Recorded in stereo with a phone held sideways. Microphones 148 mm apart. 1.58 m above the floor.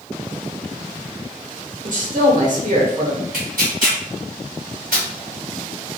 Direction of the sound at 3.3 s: 85° right.